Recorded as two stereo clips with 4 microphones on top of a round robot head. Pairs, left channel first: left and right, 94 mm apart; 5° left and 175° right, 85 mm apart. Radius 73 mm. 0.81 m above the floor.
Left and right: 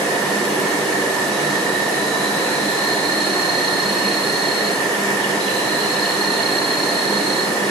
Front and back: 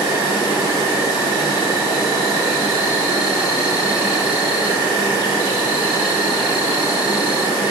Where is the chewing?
I don't hear chewing.